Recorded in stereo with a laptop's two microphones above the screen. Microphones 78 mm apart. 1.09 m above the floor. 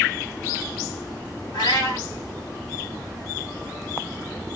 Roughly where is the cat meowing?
Left.